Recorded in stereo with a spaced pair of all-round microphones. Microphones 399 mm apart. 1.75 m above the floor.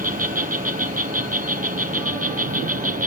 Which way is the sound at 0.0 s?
20° right (ahead or behind).